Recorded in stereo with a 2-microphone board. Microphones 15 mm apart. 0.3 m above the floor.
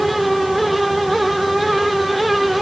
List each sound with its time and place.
Only background noise.